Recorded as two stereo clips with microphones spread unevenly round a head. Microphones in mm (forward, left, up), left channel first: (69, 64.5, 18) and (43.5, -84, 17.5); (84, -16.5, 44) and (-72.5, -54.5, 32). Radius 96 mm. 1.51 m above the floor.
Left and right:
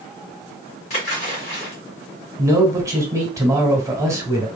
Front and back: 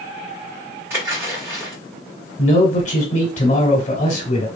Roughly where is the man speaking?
Ahead right.